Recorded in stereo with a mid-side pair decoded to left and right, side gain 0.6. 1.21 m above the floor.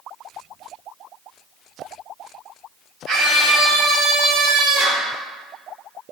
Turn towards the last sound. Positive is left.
turn(degrees=-60)